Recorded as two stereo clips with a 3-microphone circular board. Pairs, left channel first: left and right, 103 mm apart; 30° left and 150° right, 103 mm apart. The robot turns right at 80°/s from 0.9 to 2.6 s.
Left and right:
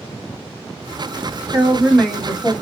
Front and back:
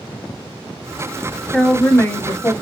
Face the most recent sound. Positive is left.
turn(degrees=35)